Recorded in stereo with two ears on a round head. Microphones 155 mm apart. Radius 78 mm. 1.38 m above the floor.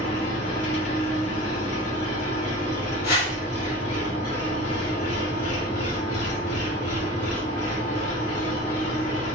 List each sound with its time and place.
0.0 s an engine running: 60° left (ahead or behind), 2 m
3.0 s a whoosh: 60° left (ahead or behind), 1.9 m